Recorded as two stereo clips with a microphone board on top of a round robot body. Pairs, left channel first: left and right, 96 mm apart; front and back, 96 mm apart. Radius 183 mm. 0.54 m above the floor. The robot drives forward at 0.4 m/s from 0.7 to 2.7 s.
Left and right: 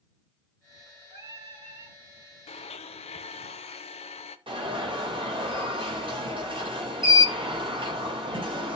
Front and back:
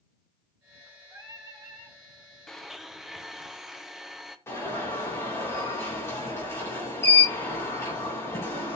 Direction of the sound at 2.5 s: 85° left.